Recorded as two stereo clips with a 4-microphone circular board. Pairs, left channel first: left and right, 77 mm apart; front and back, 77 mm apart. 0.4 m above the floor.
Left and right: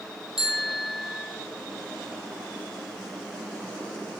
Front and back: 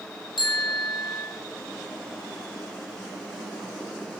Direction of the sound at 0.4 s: 5° right.